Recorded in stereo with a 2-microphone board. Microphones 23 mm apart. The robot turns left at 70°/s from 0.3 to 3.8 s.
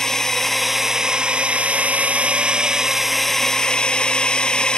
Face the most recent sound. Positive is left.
turn(degrees=140)